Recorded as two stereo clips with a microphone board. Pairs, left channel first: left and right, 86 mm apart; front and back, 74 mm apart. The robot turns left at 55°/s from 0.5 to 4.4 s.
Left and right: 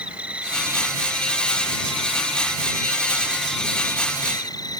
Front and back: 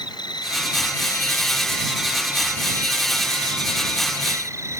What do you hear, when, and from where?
0.0 s an insect: 15° right; by 4.8 s 130° left